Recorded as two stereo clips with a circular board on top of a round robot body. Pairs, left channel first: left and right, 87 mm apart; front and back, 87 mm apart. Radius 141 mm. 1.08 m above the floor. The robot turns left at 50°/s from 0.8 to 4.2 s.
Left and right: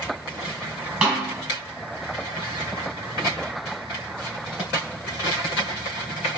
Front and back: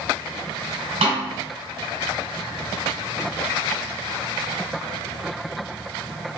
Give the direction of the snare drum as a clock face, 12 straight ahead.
6 o'clock.